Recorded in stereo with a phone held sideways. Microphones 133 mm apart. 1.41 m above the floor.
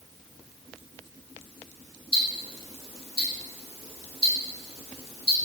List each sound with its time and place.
2.1 s ticking: 45° left (ahead or behind), 1.0 m